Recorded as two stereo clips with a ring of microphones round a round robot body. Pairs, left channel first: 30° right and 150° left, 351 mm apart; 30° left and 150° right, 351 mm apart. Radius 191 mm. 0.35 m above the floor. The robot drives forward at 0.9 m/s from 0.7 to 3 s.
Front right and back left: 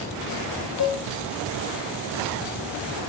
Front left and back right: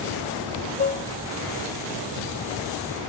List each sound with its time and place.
0.8 s dishes clattering: 20° right, 0.8 m; by 1.1 s 40° right, 0.7 m